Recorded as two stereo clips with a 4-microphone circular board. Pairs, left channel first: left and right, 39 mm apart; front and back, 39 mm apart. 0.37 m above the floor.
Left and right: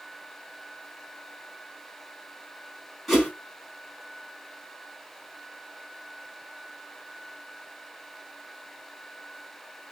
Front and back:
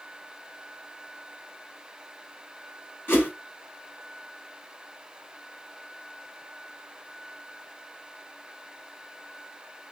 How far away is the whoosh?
About 4 m.